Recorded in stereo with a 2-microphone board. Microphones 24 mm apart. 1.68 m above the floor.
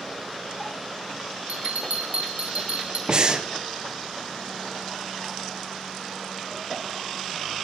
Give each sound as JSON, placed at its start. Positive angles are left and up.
{"t": 1.5, "sound": "a bell", "side_deg": -85, "distance_m": 1.3}
{"t": 3.1, "sound": "breathing", "side_deg": -40, "distance_m": 0.8}